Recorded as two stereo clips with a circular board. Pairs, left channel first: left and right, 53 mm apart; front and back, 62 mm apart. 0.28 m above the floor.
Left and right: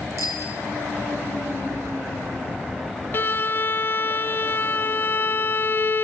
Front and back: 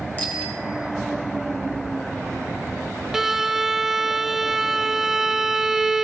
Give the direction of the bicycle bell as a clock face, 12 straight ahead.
2 o'clock.